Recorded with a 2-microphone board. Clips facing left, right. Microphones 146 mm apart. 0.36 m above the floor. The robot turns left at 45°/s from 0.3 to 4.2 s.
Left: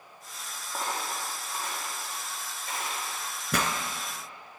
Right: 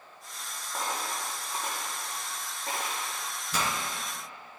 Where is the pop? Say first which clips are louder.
Left 3 dB; 75° left (ahead or behind), 1.3 m; by 3.7 s 65° left (ahead or behind), 1.3 m.